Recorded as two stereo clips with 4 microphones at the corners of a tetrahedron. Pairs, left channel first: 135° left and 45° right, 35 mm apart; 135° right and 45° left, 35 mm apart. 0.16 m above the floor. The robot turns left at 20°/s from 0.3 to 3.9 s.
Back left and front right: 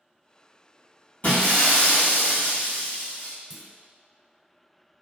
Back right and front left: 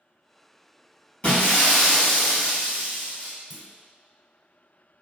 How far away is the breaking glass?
About 1.8 m.